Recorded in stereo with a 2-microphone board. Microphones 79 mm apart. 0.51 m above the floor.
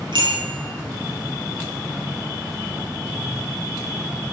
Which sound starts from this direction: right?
A bicycle bell, at 0.1 s.